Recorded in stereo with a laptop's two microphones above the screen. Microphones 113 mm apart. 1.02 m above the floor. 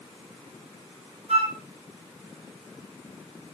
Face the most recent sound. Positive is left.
turn(degrees=-65)  # may be behind; listen again after turning